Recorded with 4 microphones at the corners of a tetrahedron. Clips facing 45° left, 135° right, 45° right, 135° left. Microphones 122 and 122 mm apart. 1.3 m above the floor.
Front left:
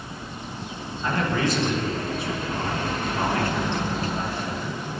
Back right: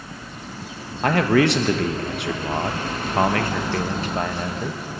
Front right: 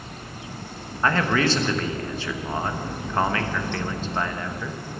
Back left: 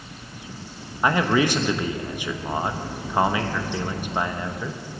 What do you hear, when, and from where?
1.0 s a man speaking: 150° right, 1.1 m